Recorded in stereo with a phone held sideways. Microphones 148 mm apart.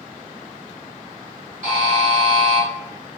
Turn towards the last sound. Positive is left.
turn(degrees=-65)  # may be behind; listen again after turning